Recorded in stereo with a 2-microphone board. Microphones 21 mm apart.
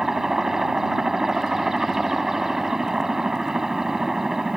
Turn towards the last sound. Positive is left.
turn(degrees=-25)  # may be behind; listen again after turning